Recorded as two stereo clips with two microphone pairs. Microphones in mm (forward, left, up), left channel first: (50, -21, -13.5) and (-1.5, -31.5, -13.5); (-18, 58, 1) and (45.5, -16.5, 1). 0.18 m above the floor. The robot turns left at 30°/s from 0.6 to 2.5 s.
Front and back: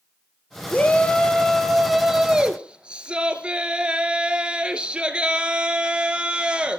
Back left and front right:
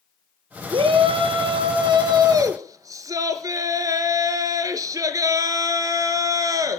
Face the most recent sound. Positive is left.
turn(degrees=-100)